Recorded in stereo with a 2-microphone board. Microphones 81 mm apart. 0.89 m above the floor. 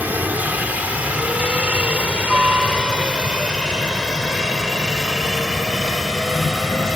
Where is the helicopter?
20° right (ahead or behind); by 7.0 s 5° right (ahead or behind).